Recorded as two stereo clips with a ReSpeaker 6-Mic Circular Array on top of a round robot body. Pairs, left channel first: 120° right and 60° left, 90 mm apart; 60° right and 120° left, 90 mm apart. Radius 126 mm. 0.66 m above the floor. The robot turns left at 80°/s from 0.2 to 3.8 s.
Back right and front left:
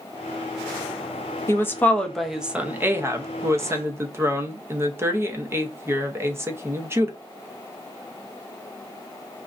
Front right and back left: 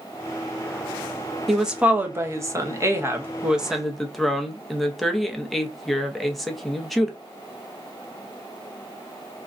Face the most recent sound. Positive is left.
turn(degrees=25)